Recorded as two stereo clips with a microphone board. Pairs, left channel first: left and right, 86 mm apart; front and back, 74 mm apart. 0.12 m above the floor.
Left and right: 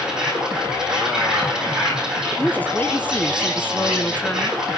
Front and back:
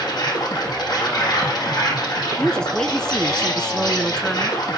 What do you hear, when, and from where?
0.0 s an insect: 10° right, 8.5 m
2.4 s a woman speaking: 65° left, 1.2 m